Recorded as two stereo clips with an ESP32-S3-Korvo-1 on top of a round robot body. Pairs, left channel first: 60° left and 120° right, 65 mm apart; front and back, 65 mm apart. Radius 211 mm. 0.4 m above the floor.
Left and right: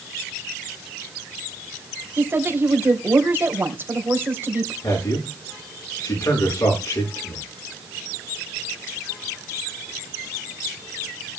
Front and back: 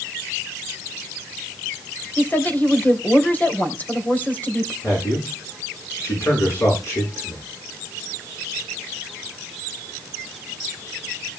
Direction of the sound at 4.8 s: 45° left.